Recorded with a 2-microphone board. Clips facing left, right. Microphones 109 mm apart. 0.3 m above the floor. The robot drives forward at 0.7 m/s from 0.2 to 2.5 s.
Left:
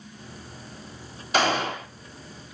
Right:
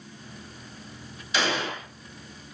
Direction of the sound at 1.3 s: 45° left (ahead or behind).